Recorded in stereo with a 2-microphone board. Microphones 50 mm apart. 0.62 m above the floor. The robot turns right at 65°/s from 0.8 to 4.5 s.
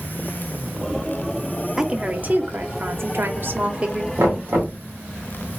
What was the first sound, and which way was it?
A woman speaking, 170° right.